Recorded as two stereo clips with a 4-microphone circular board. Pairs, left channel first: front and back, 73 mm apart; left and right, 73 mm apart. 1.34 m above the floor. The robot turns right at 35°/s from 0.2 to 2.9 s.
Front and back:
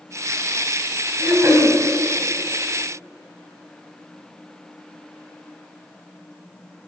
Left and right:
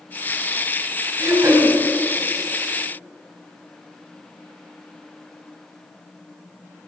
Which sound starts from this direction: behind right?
Throat clearing, at 1.2 s.